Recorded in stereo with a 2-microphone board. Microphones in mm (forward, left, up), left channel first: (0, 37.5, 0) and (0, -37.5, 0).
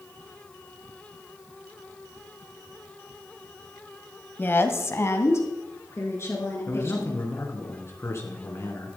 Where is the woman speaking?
25° left (ahead or behind), 1.0 m; by 7.3 s 35° left (ahead or behind), 4.5 m.